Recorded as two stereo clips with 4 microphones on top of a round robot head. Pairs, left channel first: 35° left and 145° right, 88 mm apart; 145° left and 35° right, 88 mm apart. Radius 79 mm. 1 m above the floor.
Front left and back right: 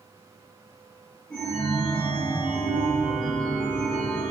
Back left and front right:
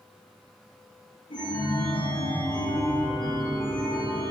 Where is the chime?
115° left, 0.8 m.